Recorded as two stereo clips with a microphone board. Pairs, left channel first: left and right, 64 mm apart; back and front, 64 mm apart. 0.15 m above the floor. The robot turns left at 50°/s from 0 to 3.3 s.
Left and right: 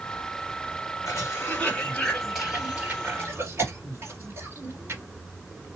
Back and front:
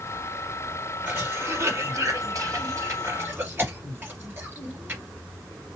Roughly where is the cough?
Ahead left.